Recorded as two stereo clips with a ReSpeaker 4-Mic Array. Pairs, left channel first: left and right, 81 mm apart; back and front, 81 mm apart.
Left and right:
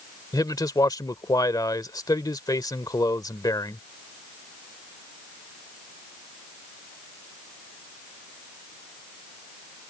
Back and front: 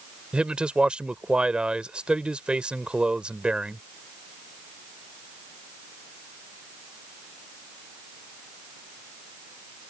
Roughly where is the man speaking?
Left.